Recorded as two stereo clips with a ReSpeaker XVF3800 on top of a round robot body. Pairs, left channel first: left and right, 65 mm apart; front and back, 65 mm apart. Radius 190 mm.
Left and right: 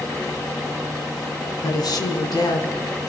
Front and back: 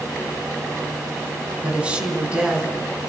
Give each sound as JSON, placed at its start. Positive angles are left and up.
{"t": 1.6, "sound": "a woman speaking", "azimuth_deg": 110, "distance_m": 5.0}